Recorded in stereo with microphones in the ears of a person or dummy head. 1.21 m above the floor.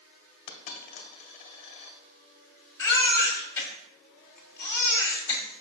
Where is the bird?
I don't hear a bird.